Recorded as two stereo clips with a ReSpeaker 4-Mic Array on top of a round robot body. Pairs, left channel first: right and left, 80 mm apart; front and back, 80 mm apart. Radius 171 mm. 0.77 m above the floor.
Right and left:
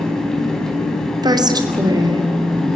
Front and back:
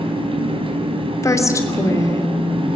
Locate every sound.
0.0 s an engine running: 175° right, 4.5 m
1.2 s a woman speaking: 50° left, 3 m